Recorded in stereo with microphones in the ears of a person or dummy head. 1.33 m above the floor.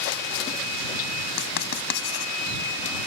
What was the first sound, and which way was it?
Writing, 60° left (ahead or behind).